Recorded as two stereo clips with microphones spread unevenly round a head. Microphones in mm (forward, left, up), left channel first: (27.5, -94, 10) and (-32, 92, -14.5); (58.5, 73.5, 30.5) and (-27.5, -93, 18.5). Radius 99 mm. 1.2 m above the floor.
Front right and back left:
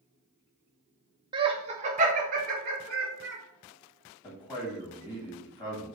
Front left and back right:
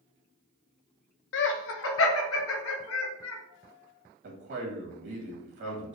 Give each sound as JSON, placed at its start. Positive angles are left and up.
{"t": 1.3, "sound": "laughter", "azimuth_deg": 40, "distance_m": 0.8}
{"t": 4.2, "sound": "a man speaking", "azimuth_deg": -145, "distance_m": 2.0}